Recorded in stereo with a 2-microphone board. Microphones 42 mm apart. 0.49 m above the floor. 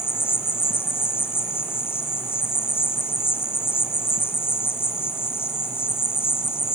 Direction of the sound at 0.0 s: 75° left (ahead or behind).